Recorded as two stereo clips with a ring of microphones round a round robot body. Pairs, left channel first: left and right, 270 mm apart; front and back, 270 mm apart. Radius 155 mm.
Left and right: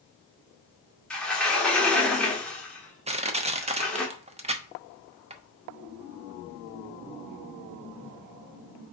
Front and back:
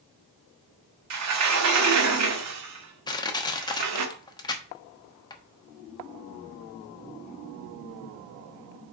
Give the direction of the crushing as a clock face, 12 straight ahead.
2 o'clock.